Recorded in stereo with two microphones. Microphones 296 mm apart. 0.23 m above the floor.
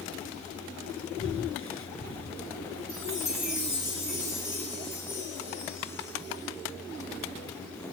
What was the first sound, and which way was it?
Breathing, 45° left (ahead or behind).